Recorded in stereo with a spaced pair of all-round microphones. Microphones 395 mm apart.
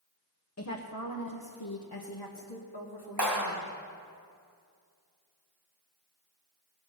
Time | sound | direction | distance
0.6 | a woman speaking | 40° left (ahead or behind) | 0.9 m
3.2 | a clap | 80° right | 2.5 m